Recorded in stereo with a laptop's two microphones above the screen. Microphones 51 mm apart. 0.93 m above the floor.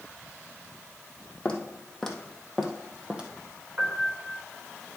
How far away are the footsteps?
About 1.8 m.